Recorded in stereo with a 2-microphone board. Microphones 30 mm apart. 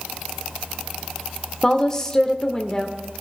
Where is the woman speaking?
20° left (ahead or behind), 0.8 m.